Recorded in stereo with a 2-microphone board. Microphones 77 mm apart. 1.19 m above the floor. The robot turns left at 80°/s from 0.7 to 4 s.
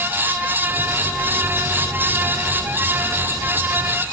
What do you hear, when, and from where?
Only background noise.